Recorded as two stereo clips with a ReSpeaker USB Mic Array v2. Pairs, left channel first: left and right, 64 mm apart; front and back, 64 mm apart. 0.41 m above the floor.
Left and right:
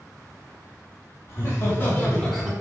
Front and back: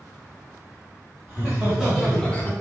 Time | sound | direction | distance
1.3 | laughter | 120° left | 1.7 m